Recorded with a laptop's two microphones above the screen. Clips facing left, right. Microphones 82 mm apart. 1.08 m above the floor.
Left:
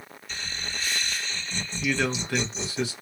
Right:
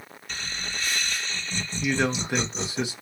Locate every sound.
0.3 s laughter: 50° right (ahead or behind), 2.0 m
1.8 s a man speaking: 20° right (ahead or behind), 0.8 m